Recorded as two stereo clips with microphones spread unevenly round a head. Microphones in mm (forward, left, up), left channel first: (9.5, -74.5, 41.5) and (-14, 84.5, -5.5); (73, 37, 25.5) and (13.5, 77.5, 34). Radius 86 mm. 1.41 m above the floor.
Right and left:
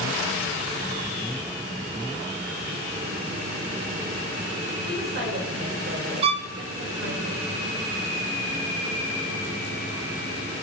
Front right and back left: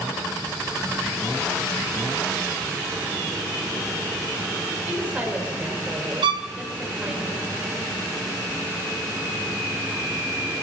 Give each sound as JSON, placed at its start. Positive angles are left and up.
{"t": 4.9, "sound": "a woman speaking", "azimuth_deg": 75, "distance_m": 5.5}
{"t": 6.2, "sound": "a violin", "azimuth_deg": 155, "distance_m": 1.0}